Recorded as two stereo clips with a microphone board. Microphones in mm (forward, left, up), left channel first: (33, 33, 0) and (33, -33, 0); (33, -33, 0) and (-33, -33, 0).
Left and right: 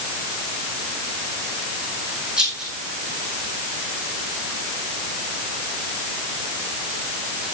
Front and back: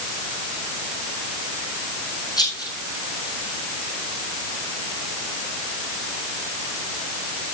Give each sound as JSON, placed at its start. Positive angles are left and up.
{"t": 2.4, "sound": "a rattle", "azimuth_deg": -15, "distance_m": 8.5}